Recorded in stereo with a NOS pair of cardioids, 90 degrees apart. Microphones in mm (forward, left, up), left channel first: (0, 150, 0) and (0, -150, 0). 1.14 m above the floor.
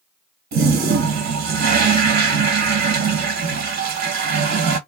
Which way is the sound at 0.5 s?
60° right.